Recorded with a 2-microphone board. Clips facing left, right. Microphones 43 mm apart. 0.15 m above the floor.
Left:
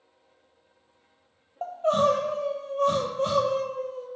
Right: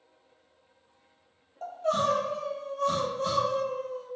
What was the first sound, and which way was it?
Crying, 40° left (ahead or behind).